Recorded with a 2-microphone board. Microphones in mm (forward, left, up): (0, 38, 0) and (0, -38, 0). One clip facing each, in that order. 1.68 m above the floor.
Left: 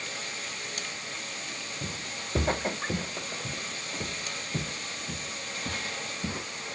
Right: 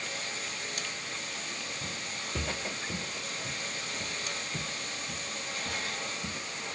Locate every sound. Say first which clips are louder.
1.8 s footsteps: left 1 dB; 40° left (ahead or behind)